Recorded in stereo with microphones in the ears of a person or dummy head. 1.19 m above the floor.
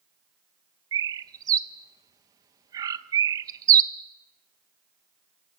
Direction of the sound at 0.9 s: 20° right (ahead or behind).